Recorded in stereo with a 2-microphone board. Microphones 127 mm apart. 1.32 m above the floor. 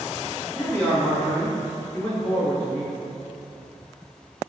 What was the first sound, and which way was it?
A man speaking, 15° left (ahead or behind).